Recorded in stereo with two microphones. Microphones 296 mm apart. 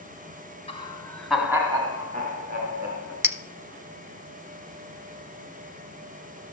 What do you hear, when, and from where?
0.7 s laughter: 20° left (ahead or behind), 1.5 m; by 3.1 s 40° right (ahead or behind), 2.5 m
3.2 s a clink: 10° right (ahead or behind), 0.6 m